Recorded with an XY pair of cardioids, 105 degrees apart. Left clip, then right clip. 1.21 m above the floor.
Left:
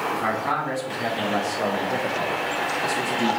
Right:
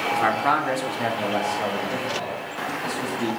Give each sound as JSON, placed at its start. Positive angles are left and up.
{"t": 0.1, "sound": "a man speaking", "azimuth_deg": -60, "distance_m": 0.9}